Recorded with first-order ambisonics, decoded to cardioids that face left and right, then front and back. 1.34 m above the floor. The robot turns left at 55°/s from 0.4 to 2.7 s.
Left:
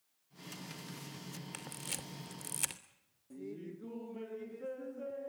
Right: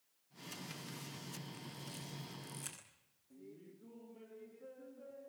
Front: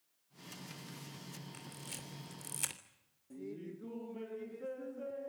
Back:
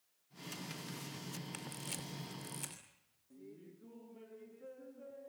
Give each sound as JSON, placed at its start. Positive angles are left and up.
{"t": 1.5, "sound": "a camera shutter", "azimuth_deg": 120, "distance_m": 3.0}
{"t": 3.3, "sound": "laughter", "azimuth_deg": 50, "distance_m": 0.5}